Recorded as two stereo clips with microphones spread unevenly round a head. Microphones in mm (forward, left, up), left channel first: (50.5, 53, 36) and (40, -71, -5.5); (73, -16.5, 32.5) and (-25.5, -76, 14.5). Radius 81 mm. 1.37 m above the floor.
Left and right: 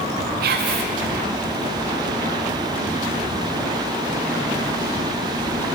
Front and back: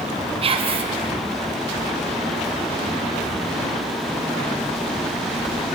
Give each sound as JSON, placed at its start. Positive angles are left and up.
{"t": 0.4, "sound": "whispering", "azimuth_deg": -105, "distance_m": 0.8}